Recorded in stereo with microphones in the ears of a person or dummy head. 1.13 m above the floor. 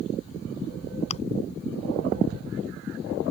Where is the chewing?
30° left (ahead or behind).